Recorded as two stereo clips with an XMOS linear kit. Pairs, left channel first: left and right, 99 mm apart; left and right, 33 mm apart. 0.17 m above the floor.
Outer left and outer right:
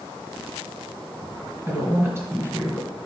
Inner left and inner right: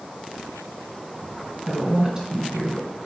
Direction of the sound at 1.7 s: 25° right (ahead or behind).